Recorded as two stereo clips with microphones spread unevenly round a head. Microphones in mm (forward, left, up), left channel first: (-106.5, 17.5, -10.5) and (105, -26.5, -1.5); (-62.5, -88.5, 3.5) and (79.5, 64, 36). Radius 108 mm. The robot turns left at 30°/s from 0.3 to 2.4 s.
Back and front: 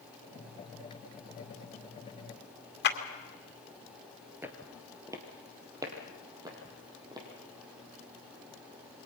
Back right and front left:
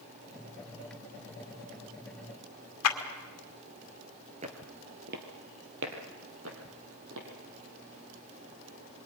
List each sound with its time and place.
2.8 s a clap: 150° right, 2 m
4.4 s footsteps: 60° left, 1.9 m